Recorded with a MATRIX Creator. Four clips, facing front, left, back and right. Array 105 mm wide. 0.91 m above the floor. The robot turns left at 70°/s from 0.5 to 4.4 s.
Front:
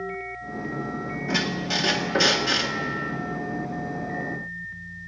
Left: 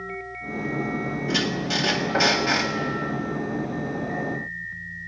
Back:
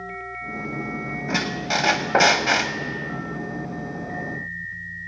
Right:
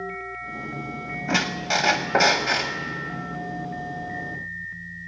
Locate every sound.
1.3 s a squeak: 100° right, 1.0 m; by 2.7 s 160° left, 1.0 m